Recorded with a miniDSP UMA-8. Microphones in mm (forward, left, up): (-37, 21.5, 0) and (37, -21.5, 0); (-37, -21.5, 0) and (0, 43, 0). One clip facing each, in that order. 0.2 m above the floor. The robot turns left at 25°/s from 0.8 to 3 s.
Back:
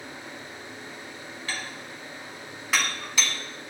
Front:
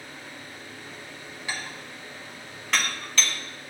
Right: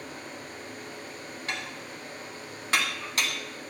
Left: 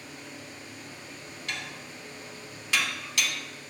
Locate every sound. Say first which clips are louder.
1.5 s dishes clattering: front 1 dB, right 2 dB; 95° right, 1.0 m; by 3.4 s 135° right, 1.0 m